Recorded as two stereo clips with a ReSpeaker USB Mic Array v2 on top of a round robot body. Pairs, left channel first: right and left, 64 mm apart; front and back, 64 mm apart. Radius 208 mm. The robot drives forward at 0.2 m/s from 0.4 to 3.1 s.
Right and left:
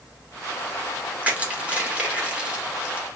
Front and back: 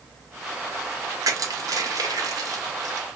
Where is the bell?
I don't hear a bell.